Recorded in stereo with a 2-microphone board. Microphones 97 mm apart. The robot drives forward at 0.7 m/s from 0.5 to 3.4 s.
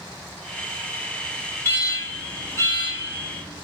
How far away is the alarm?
About 1.4 m.